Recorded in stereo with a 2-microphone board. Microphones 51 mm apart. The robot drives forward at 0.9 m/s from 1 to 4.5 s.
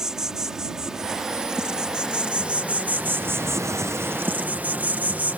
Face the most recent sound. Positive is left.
turn(degrees=-35)  # may be behind; listen again after turning